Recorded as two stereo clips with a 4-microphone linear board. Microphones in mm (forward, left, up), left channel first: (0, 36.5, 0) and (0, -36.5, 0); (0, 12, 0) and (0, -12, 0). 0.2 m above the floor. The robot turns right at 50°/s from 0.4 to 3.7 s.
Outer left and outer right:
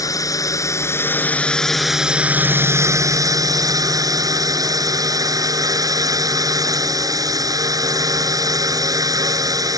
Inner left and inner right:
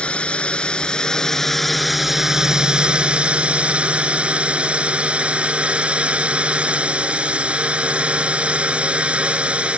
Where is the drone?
110° left; by 9.8 s 85° right.